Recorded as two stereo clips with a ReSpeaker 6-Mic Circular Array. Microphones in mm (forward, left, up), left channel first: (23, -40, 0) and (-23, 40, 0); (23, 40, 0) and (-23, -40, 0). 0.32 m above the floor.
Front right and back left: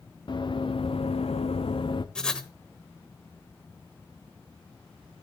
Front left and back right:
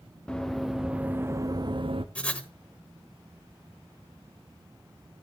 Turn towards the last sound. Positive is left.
turn(degrees=10)